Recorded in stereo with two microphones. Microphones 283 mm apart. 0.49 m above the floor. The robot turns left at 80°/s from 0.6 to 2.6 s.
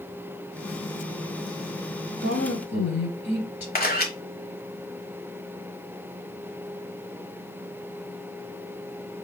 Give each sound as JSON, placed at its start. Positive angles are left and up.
{"t": 2.2, "sound": "a woman speaking", "azimuth_deg": 125, "distance_m": 2.5}
{"t": 3.8, "sound": "a camera shutter", "side_deg": 30, "distance_m": 1.0}